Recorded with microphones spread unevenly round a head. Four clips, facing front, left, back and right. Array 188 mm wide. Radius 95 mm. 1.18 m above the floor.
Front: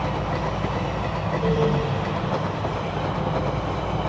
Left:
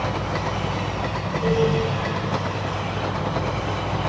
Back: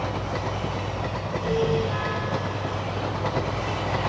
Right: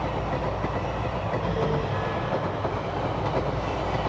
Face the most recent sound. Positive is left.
turn(degrees=50)